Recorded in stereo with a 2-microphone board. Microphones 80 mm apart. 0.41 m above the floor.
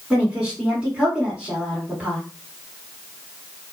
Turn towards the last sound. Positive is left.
turn(degrees=-10)  # may be behind; listen again after turning